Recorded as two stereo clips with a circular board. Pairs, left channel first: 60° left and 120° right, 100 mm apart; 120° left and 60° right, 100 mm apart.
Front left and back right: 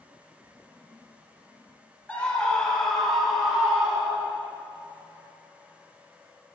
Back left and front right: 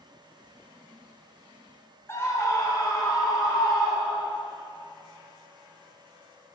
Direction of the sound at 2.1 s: 120° left.